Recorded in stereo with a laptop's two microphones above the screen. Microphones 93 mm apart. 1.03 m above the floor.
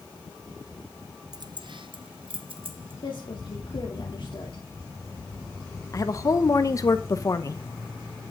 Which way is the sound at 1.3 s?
45° right (ahead or behind).